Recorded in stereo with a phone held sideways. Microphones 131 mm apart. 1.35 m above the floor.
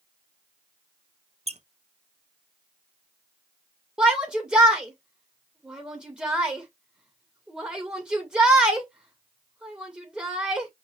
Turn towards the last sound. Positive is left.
turn(degrees=-5)  # may be behind; listen again after turning